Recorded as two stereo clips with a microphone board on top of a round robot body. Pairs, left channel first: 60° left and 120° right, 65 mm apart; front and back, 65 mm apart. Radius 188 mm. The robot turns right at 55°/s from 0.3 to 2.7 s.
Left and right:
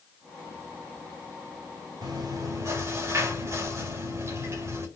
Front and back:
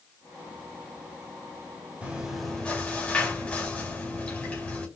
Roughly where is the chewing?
Right.